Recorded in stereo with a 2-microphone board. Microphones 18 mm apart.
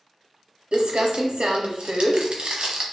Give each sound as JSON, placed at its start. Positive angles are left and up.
{"t": 0.7, "sound": "crumpling", "side_deg": -80, "distance_m": 0.6}